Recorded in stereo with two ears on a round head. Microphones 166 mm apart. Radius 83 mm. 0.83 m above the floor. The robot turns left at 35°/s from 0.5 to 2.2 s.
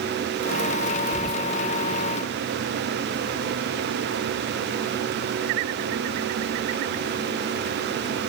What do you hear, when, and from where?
1.1 s whispering: 5° right (ahead or behind), 0.6 m; by 1.5 s 5° left (ahead or behind), 0.6 m